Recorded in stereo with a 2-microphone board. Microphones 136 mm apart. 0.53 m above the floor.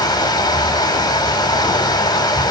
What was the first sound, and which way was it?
Running water, 30° left (ahead or behind).